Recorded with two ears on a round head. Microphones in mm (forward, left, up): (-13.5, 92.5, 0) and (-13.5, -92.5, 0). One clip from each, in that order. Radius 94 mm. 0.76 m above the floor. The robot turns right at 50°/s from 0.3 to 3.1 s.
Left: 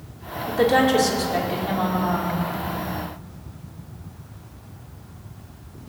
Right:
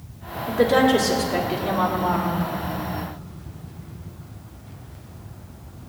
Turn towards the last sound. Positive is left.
turn(degrees=-105)